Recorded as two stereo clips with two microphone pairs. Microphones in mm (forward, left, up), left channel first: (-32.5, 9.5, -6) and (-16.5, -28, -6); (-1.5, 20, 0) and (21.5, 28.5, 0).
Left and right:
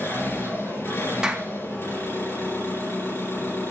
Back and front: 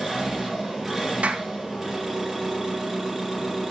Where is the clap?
5° left, 1.6 m.